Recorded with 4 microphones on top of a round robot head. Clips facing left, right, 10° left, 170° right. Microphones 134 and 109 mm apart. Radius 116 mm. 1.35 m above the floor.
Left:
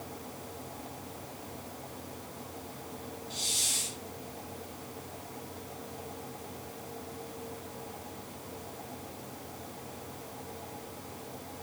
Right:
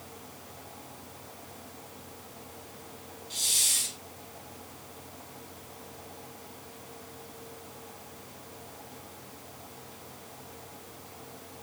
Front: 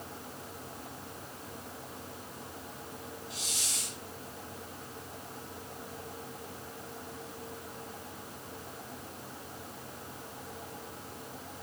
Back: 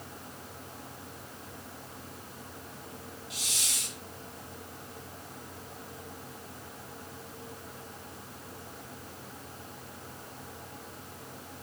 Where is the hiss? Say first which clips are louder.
Left 3 dB, even; 130° right, 1.6 m.